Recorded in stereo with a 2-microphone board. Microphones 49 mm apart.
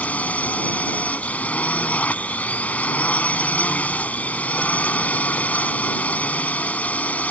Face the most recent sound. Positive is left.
turn(degrees=30)  # may be behind; listen again after turning